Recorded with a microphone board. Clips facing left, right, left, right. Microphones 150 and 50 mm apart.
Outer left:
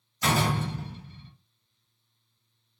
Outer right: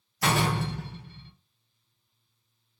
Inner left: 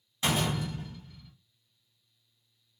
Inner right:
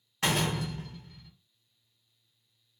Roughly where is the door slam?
Right.